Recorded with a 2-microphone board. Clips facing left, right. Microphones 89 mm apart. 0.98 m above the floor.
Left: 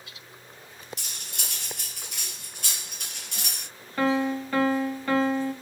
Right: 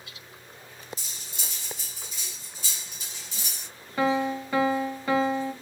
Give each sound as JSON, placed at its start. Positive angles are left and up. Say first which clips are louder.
{"t": 1.0, "sound": "cutlery clinking", "louder": "left 2 dB", "side_deg": 65, "distance_m": 0.5}
{"t": 4.0, "sound": "a piano", "louder": "even", "side_deg": -10, "distance_m": 0.8}